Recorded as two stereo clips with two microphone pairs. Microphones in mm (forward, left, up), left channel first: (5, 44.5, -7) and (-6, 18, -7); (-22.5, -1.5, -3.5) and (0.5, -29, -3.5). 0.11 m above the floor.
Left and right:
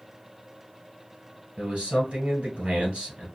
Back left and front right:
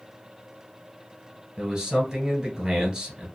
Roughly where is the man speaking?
Behind right.